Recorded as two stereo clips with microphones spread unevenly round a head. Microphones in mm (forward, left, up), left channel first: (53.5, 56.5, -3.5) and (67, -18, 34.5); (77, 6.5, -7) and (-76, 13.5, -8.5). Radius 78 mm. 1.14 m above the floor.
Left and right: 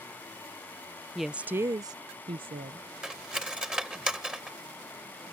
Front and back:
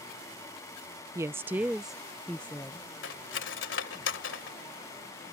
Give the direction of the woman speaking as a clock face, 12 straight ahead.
8 o'clock.